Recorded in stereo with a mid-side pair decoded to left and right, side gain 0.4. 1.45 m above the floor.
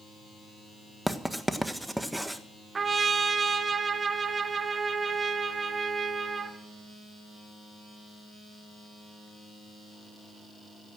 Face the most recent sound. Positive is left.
turn(degrees=-40)